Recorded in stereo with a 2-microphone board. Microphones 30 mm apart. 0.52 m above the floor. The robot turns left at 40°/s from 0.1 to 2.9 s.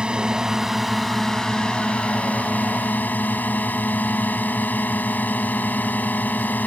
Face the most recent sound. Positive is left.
turn(degrees=95)